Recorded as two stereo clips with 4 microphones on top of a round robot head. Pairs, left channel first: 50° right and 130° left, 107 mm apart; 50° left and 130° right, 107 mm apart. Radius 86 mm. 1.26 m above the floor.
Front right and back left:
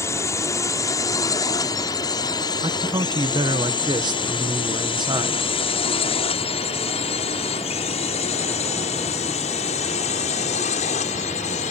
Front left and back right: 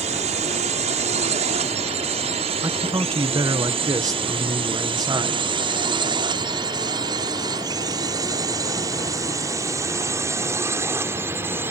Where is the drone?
115° right; by 11.7 s 60° right.